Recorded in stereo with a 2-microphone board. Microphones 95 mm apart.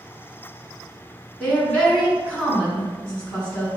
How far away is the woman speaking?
About 1.5 m.